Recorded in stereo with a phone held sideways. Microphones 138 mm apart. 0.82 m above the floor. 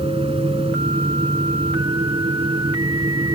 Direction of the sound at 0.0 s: 45° right (ahead or behind).